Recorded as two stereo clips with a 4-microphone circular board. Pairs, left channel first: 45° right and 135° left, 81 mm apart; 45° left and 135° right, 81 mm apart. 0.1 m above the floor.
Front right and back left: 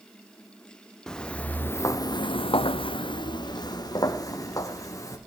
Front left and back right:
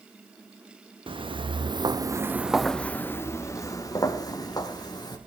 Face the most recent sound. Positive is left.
turn(degrees=10)